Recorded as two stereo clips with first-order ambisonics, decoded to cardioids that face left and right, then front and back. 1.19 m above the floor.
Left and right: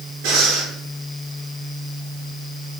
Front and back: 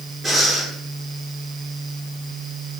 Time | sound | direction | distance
0.2 | breathing | 95° right | 3 m